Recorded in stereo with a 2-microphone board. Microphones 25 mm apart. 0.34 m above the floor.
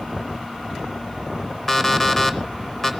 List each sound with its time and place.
1.7 s an alarm clock: 10° left (ahead or behind), 0.6 m